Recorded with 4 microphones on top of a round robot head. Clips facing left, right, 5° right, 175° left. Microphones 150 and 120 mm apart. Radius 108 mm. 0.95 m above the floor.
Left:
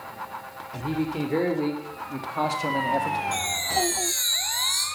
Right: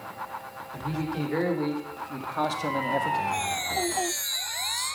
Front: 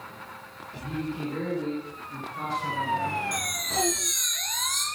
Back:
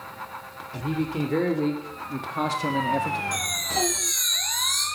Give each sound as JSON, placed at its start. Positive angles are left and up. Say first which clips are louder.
{"t": 0.7, "sound": "a man speaking", "louder": "left 4 dB, back 5 dB", "azimuth_deg": 155, "distance_m": 3.0}
{"t": 3.3, "sound": "a chime", "louder": "left 1 dB, back 2 dB", "azimuth_deg": 60, "distance_m": 5.0}